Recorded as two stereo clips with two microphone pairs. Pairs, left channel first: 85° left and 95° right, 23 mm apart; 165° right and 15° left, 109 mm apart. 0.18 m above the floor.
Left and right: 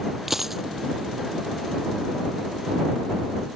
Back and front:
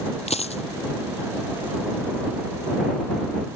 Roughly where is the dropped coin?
Behind.